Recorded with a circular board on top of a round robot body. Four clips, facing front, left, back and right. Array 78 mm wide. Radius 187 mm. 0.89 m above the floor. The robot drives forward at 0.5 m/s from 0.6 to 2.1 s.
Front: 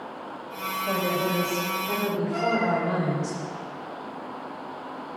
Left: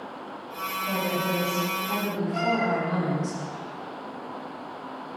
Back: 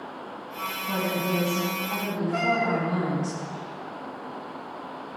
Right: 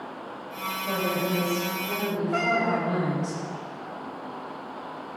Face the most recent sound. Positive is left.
turn(degrees=-100)